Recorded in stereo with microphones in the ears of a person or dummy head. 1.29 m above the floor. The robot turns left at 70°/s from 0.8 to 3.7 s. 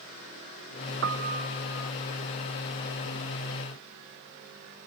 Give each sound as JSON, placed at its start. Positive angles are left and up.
{"t": 1.0, "sound": "a piano", "side_deg": -60, "distance_m": 0.8}